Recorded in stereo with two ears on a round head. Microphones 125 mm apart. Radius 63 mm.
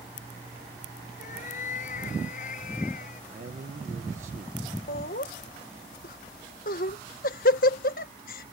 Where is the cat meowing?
60° left (ahead or behind).